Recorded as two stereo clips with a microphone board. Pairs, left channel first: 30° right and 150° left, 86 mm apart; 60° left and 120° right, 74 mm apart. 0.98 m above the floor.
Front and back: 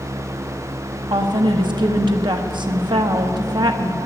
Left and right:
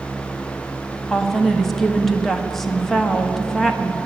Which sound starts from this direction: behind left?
A woman speaking, at 1.1 s.